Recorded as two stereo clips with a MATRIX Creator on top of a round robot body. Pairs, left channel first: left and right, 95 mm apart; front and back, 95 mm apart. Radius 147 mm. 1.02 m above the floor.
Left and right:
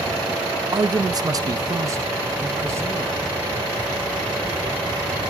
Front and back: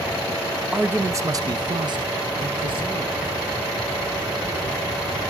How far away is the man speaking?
About 0.6 m.